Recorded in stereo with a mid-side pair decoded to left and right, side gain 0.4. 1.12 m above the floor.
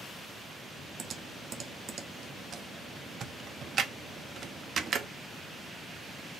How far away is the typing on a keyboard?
About 0.8 m.